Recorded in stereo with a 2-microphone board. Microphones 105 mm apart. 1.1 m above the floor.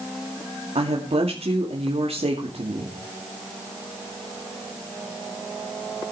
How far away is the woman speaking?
About 2.5 m.